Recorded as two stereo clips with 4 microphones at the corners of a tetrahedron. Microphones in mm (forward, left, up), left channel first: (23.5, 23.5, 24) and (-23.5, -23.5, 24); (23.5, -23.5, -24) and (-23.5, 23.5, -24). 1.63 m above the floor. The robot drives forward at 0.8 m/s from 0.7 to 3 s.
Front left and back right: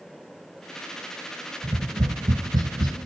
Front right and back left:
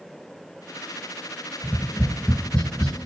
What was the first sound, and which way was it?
Tapping, 105° right.